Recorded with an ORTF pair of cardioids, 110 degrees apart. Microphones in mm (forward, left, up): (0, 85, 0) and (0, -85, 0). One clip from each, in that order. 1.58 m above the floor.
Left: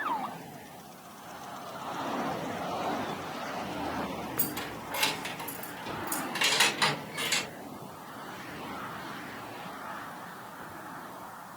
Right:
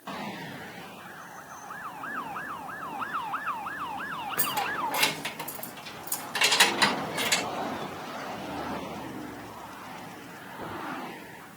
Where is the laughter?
I don't hear laughter.